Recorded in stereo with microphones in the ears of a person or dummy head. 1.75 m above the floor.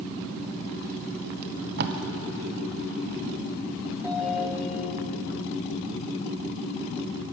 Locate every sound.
1.4 s tape being pulled: 55° right (ahead or behind), 0.9 m
4.0 s a ringtone: 5° right (ahead or behind), 4.5 m